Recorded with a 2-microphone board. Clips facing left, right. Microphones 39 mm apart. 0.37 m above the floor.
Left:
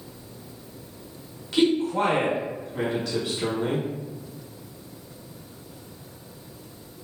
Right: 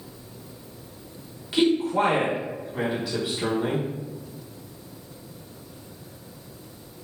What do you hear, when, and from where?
1.5 s a man speaking: 15° right (ahead or behind), 1.0 m